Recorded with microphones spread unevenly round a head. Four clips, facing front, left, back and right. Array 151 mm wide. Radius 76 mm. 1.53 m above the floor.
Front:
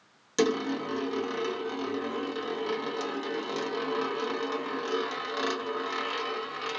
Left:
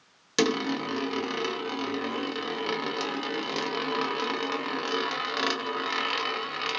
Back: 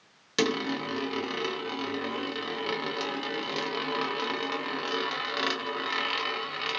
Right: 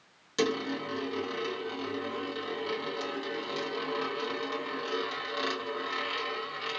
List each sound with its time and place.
0.4 s a dropped coin: 110° left, 0.9 m